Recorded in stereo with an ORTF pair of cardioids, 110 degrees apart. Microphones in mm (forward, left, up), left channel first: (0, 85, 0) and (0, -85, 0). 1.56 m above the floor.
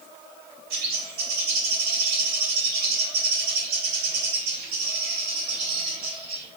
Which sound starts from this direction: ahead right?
A bird, at 0.7 s.